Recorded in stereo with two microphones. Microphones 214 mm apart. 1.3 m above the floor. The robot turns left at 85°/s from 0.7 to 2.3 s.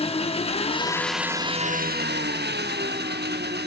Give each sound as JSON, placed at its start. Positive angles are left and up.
{"t": 0.0, "sound": "an engine running", "azimuth_deg": 35, "distance_m": 1.1}